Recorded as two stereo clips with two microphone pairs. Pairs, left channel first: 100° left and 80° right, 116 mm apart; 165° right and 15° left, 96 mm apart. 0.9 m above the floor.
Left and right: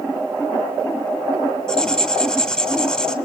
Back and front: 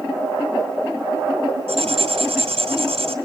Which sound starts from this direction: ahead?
Writing, at 1.7 s.